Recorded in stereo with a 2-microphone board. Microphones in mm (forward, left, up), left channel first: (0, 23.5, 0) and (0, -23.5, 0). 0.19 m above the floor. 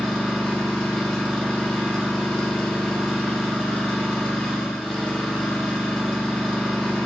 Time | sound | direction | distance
0.0 | an engine running | centre (ahead or behind) | 3.5 m